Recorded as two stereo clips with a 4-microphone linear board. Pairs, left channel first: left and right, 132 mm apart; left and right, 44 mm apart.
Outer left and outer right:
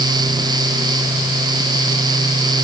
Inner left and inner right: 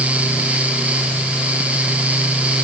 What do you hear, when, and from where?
Only background noise.